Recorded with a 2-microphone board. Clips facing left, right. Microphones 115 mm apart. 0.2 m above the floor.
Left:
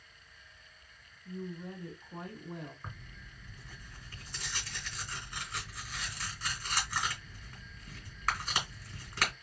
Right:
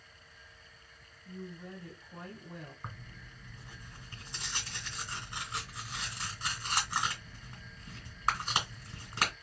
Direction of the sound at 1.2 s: 25° left (ahead or behind).